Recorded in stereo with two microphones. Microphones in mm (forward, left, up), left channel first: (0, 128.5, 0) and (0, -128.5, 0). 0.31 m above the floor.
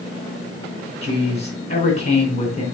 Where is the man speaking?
25° left (ahead or behind), 3 m.